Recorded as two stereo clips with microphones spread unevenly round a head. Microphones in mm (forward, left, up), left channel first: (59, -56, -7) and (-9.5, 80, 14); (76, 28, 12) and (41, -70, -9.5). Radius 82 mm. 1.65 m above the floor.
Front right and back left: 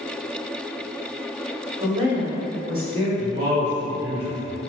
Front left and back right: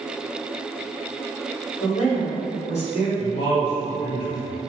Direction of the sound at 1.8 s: 65° left.